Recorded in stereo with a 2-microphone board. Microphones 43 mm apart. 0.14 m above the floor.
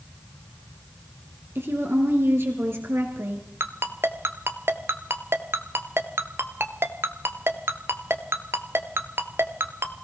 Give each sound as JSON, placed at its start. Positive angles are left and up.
{"t": 1.6, "sound": "a woman speaking", "side_deg": -60, "distance_m": 2.5}
{"t": 3.6, "sound": "a ringtone", "side_deg": -65, "distance_m": 1.0}